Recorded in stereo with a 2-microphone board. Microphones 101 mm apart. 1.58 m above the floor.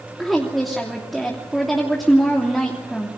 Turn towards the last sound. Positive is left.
turn(degrees=0)  # may be behind; listen again after turning